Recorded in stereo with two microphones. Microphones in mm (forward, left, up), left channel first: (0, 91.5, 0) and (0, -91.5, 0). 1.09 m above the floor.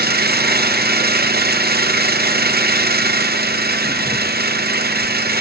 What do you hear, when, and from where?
0.0 s an engine running: 60° right (ahead or behind), 0.7 m